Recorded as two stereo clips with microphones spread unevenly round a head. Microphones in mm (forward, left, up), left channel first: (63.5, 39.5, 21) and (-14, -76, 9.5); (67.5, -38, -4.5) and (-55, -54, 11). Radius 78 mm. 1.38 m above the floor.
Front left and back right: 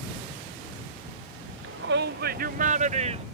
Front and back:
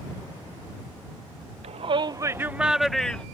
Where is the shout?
135° right; by 3.2 s 75° right.